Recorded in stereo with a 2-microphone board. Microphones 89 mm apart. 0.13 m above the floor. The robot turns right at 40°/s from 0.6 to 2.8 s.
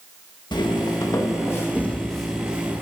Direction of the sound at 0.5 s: 60° left (ahead or behind).